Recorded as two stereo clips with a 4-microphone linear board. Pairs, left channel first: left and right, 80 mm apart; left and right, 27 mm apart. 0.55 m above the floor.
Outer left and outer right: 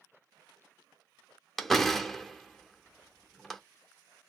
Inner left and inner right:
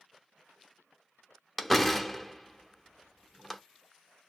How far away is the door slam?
About 0.7 m.